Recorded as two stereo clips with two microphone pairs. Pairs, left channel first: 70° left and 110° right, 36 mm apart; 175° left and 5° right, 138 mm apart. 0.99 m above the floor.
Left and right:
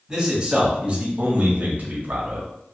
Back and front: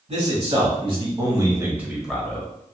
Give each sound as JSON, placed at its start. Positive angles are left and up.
{"t": 0.1, "sound": "a man speaking", "azimuth_deg": -40, "distance_m": 1.7}